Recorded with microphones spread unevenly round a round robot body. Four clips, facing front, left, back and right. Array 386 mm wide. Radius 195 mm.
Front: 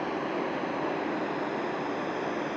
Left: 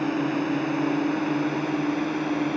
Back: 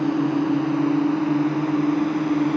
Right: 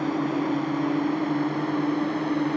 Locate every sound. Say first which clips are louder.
0.0 s a drone: even, back 10 dB; straight behind; by 2.6 s 175° right